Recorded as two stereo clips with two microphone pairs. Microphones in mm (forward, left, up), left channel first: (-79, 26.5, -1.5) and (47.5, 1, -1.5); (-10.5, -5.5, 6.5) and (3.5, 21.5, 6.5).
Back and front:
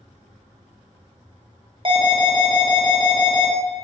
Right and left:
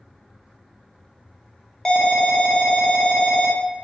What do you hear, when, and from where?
1.9 s an alarm: 50° right, 0.8 m